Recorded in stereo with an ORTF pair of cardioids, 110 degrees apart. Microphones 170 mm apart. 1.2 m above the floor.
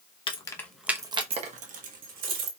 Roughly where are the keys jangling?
Ahead left.